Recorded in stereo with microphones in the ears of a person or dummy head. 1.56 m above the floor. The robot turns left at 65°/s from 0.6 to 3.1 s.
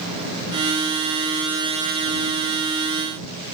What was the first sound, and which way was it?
Only background noise.